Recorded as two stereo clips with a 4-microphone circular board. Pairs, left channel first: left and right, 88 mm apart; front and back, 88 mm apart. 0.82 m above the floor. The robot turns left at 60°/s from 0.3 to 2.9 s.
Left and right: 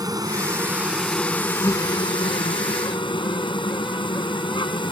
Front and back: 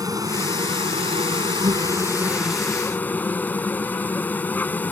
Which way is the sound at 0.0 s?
135° right.